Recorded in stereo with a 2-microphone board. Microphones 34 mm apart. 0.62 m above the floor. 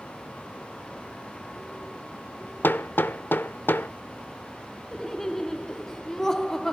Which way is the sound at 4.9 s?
10° left (ahead or behind).